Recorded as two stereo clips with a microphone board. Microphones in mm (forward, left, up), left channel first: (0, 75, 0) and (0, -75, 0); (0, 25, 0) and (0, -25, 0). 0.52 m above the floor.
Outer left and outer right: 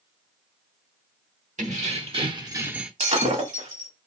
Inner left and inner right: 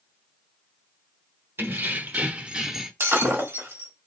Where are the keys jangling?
55° right (ahead or behind), 1.1 m; by 2.9 s 5° right (ahead or behind), 0.7 m.